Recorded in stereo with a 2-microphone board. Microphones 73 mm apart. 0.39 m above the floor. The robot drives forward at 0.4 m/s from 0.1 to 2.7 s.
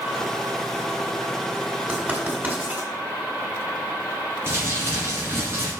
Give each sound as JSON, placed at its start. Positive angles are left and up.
{"t": 1.9, "sound": "writing", "side_deg": -20, "distance_m": 2.0}
{"t": 4.5, "sound": "crumpling", "side_deg": -30, "distance_m": 3.0}